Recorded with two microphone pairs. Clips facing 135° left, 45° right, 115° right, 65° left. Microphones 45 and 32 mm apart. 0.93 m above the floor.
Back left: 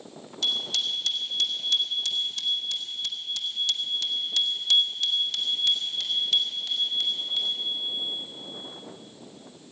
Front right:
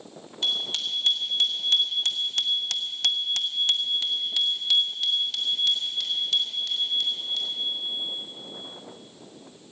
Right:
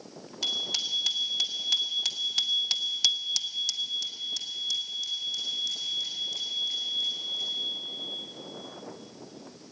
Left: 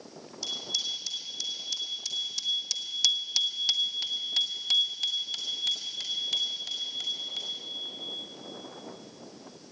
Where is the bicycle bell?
105° right, 2.5 m; by 7.6 s 50° left, 4 m.